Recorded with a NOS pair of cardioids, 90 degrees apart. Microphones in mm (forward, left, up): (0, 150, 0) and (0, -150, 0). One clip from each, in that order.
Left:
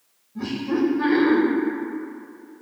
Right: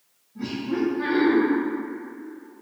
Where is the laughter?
20° left, 0.7 m.